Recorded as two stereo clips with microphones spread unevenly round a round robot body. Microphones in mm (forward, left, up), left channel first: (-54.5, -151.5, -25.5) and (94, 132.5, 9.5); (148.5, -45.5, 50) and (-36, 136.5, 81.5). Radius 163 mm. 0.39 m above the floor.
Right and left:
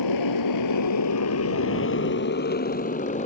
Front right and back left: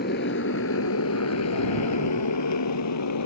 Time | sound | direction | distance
0.0 | a motorcycle | 100° right | ?